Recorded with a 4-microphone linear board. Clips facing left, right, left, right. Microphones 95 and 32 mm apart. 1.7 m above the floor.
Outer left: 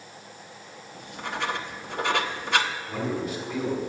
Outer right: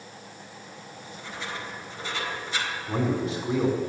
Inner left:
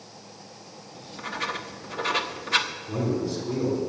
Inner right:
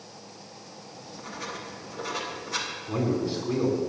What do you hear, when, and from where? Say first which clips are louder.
0.9 s writing: outer left 8 dB, inner left 7 dB; 60° left (ahead or behind), 0.9 m
2.9 s a man speaking: outer right 3 dB, inner right 2 dB; 30° right (ahead or behind), 5 m